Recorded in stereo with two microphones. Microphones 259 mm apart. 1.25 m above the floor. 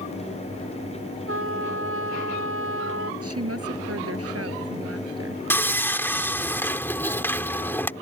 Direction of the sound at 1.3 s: 55° right (ahead or behind).